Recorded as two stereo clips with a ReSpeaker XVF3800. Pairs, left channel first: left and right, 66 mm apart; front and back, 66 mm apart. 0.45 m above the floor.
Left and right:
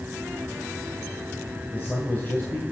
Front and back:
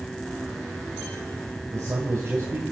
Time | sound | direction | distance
1.7 | a man speaking | 145° left | 2.5 m